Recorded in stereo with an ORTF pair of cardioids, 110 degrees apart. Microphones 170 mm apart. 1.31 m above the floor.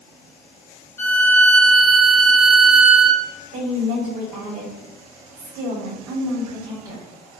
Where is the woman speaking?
55° right, 1.8 m.